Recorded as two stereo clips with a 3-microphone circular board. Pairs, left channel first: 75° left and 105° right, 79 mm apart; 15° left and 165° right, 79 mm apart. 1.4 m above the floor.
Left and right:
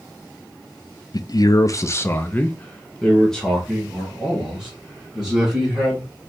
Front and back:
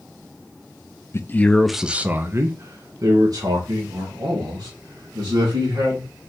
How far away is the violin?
I don't hear a violin.